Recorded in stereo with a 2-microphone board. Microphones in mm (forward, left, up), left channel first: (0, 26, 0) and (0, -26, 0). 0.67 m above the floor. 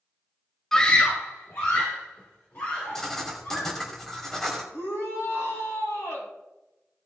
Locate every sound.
0.7 s a scream: 10° left (ahead or behind), 0.7 m; by 3.8 s 55° left (ahead or behind), 4 m
3.0 s writing: 5° left (ahead or behind), 2 m
4.7 s a shout: 80° left, 4.5 m